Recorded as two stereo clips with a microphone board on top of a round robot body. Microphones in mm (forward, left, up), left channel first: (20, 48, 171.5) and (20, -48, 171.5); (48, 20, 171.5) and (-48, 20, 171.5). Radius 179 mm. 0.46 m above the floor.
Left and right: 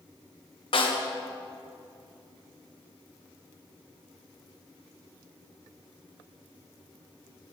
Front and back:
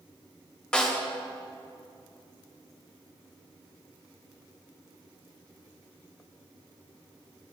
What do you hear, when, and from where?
0.7 s a snare drum: 80° left, 3 m